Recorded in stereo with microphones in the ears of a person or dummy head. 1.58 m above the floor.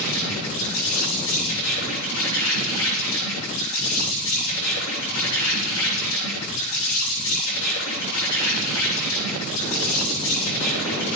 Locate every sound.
0.0 s an insect: 75° left (ahead or behind), 7.5 m